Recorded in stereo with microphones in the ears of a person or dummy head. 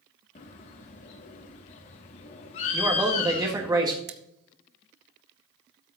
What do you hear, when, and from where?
0.3 s a bird: 35° left (ahead or behind), 0.9 m
2.7 s a man speaking: 15° right (ahead or behind), 1.9 m
4.1 s scissors: 55° right (ahead or behind), 1.1 m